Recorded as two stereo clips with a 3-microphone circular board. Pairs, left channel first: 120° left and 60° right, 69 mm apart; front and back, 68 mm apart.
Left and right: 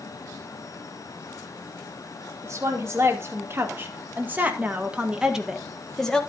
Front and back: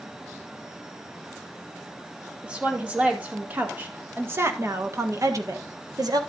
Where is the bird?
No bird in this recording.